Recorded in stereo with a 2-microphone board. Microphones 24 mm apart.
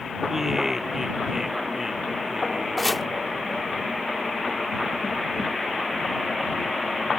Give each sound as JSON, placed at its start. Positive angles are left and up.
{"t": 0.3, "sound": "laughter", "side_deg": -10}
{"t": 2.8, "sound": "chopping", "side_deg": 5}